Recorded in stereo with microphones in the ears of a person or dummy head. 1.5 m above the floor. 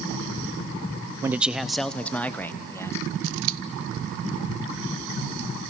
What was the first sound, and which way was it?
A man speaking, 15° right (ahead or behind).